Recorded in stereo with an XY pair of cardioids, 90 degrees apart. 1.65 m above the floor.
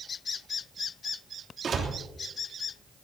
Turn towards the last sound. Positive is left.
turn(degrees=-50)